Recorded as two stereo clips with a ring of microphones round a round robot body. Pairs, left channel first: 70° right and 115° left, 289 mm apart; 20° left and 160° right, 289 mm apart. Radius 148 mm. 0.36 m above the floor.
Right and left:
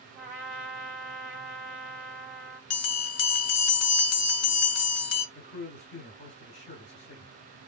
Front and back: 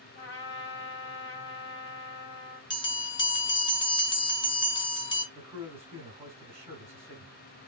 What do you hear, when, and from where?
0.1 s a trumpet: 30° left, 1.7 m
2.7 s a bell: 50° right, 0.6 m
5.3 s a man speaking: 85° right, 1.3 m